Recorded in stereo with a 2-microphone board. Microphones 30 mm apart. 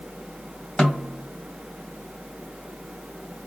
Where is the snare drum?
35° left (ahead or behind), 2.5 m.